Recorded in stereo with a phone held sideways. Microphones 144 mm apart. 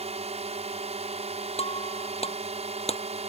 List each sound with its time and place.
0.0 s a drone: 50° right (ahead or behind)
1.6 s breaking glass: 45° left (ahead or behind)